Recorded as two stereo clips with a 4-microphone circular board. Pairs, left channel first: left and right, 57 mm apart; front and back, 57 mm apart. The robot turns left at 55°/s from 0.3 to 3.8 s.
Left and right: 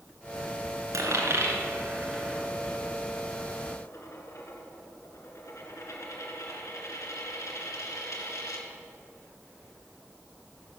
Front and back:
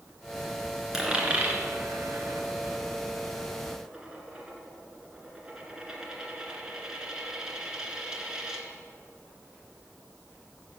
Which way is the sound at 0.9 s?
100° right.